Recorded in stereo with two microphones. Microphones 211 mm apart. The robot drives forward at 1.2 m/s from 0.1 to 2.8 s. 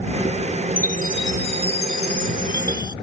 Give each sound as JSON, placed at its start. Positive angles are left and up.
{"t": 0.8, "sound": "a chime", "side_deg": 40}